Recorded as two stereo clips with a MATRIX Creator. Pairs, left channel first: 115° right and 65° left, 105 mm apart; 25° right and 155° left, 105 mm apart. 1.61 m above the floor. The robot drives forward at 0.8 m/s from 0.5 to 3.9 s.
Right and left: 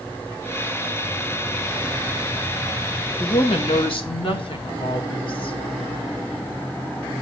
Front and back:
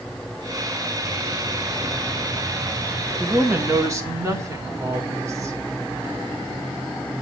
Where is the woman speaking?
130° right, 1.5 m; by 5.5 s 145° right, 1.9 m.